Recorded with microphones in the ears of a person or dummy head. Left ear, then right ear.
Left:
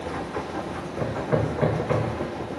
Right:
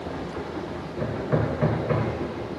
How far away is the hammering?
About 1.1 m.